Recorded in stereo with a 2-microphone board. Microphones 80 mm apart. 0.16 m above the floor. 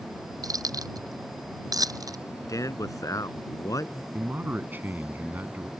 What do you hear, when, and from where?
0.4 s keys jangling: 50° right (ahead or behind)
2.5 s a man speaking: 50° left (ahead or behind)
4.1 s a man speaking: 25° right (ahead or behind)